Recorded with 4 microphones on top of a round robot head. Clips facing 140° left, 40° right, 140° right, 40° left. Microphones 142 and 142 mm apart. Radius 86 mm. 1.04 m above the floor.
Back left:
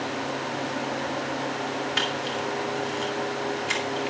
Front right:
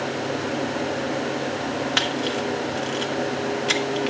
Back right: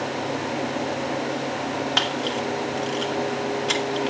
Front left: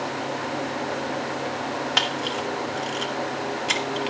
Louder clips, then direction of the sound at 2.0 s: Front right 4 dB, back right 2 dB; 45° right.